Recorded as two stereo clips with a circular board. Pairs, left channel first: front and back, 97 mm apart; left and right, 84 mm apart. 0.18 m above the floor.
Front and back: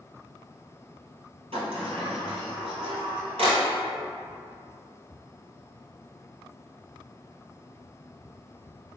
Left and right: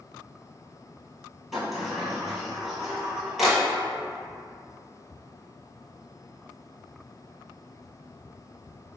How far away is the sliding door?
About 1.2 m.